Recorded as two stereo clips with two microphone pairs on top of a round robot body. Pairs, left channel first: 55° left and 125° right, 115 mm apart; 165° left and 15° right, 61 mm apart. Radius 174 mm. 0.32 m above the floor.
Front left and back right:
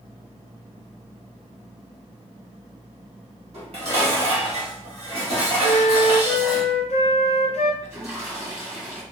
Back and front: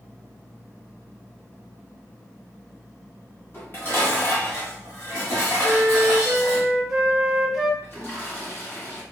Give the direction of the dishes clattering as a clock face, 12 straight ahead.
5 o'clock.